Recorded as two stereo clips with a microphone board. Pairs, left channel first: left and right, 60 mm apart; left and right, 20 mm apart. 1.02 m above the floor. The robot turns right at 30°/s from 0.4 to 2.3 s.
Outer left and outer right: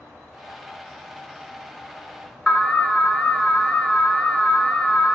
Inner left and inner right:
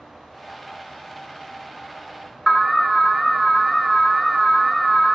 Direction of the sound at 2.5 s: 10° left (ahead or behind).